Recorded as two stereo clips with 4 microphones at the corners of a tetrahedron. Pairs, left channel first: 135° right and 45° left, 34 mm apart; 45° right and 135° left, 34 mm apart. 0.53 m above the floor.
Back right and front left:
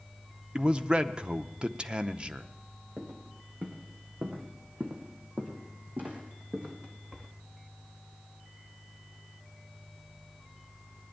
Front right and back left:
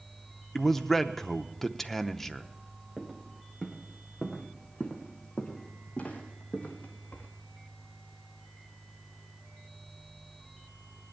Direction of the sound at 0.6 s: 30° left.